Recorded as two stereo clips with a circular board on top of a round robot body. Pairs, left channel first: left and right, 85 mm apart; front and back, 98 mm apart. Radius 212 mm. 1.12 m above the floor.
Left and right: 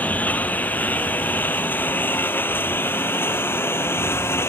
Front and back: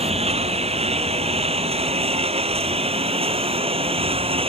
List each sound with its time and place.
0.0 s a lawn mower: 165° left; by 4.5 s 155° left